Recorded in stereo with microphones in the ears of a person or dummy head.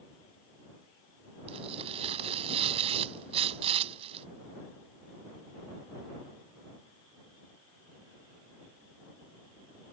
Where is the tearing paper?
30° right (ahead or behind).